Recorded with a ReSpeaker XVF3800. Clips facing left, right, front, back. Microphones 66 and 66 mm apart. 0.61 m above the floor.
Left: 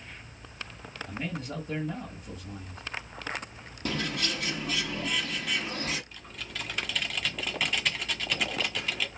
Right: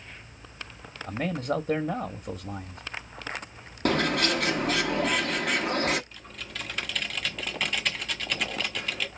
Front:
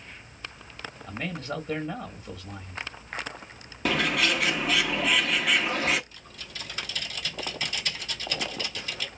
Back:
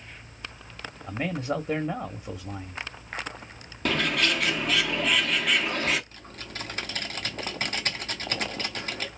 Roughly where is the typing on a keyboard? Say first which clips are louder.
Even, back 4 dB; behind.